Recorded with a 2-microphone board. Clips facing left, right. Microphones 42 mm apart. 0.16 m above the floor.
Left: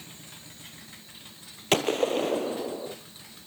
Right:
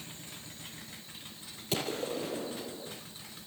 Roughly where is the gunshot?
Left.